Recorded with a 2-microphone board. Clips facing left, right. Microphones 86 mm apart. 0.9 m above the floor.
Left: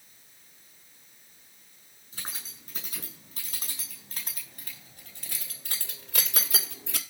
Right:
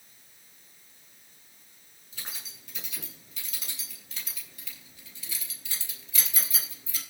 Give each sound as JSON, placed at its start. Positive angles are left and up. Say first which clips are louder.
{"t": 2.1, "sound": "keys jangling", "louder": "left 2 dB", "side_deg": 40, "distance_m": 8.0}